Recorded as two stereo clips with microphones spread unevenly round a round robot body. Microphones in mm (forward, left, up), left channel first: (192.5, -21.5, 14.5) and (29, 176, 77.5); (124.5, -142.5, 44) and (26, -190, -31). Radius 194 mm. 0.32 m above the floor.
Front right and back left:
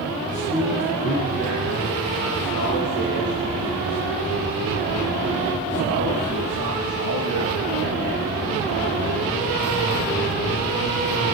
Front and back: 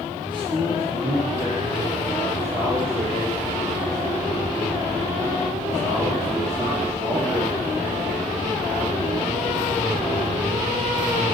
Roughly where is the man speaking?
Behind.